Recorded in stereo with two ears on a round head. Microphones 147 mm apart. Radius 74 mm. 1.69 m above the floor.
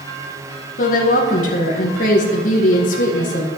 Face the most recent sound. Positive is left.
turn(degrees=50)  # may be behind; listen again after turning